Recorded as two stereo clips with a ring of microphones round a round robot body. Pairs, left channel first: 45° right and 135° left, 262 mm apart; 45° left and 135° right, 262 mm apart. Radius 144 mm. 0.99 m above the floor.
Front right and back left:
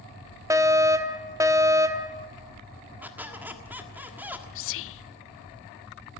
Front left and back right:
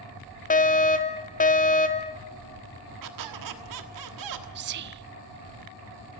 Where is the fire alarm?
65° left, 1.3 m.